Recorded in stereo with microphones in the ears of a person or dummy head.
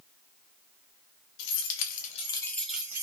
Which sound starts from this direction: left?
Keys jangling, at 1.4 s.